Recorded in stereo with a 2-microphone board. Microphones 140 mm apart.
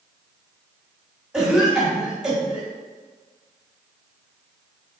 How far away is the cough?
About 1.1 m.